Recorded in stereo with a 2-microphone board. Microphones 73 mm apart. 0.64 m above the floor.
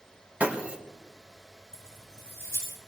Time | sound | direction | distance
0.4 | breaking glass | 20° right (ahead or behind) | 3.5 m
1.7 | keys jangling | 40° right (ahead or behind) | 9.5 m